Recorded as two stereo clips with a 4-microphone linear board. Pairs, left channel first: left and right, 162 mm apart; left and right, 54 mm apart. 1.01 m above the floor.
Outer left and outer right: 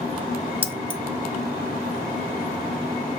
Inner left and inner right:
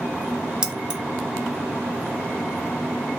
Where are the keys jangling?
15° right (ahead or behind), 1.3 m.